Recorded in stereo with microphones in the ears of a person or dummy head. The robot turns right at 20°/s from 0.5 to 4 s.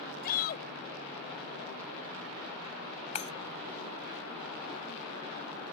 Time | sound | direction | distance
0.2 | a shout | 55° left (ahead or behind) | ?
3.1 | breaking glass | 35° left (ahead or behind) | ?